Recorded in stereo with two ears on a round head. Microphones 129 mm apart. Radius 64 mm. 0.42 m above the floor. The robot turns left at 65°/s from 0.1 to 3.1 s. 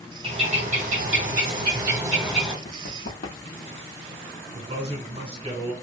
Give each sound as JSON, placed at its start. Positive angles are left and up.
{"t": 0.2, "sound": "a bird", "azimuth_deg": -40, "distance_m": 2.0}
{"t": 2.6, "sound": "running footsteps", "side_deg": 40, "distance_m": 1.1}
{"t": 4.5, "sound": "a man speaking", "side_deg": -30, "distance_m": 1.6}